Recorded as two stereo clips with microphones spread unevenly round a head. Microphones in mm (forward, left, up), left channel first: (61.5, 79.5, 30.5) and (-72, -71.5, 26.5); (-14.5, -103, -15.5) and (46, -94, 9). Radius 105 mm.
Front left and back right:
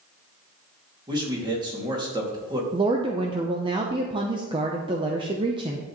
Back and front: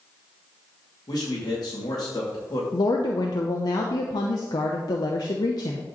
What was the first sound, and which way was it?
A man speaking, 160° left.